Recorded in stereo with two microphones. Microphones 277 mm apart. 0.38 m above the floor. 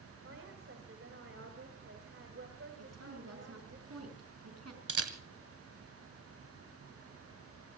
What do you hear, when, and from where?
0.2 s a woman speaking: 50° right (ahead or behind), 2.5 m
2.8 s a woman speaking: 65° right (ahead or behind), 4.5 m
4.9 s a camera shutter: 55° right (ahead or behind), 1.8 m